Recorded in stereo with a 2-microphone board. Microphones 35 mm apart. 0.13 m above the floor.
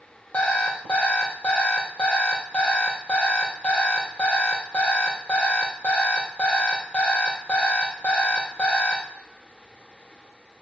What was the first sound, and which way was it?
An alarm clock, 35° left (ahead or behind).